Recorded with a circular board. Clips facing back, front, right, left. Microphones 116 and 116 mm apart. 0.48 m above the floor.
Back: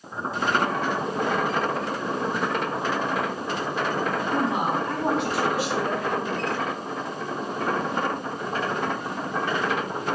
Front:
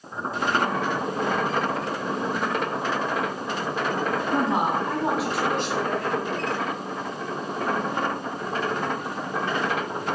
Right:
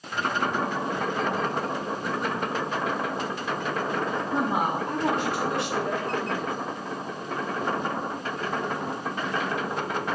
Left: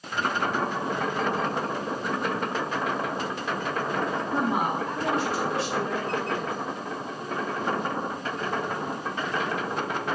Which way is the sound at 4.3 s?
20° right.